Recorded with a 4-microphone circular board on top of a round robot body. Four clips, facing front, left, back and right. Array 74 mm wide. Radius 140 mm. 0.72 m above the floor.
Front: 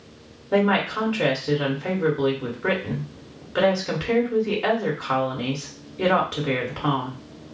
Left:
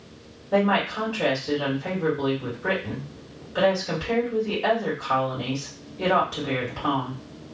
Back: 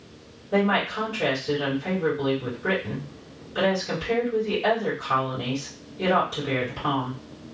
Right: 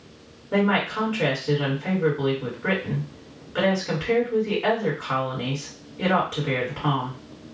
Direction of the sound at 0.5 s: 15° right.